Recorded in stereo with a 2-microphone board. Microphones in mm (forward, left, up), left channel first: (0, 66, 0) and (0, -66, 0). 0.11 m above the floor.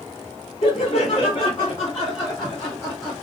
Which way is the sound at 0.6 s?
50° left (ahead or behind).